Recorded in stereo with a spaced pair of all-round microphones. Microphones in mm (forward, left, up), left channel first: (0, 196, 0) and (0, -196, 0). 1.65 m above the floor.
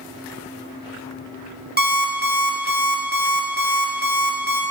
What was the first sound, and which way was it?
An alarm clock, 25° right (ahead or behind).